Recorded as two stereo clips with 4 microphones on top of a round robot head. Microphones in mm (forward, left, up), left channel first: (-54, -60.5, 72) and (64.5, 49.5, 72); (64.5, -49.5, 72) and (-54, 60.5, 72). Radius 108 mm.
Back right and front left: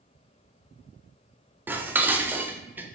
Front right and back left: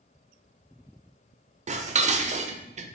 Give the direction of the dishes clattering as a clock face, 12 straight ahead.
8 o'clock.